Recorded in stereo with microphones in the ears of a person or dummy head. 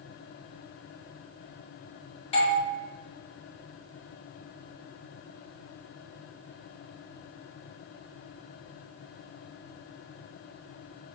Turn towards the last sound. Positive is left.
turn(degrees=30)  # may be behind; listen again after turning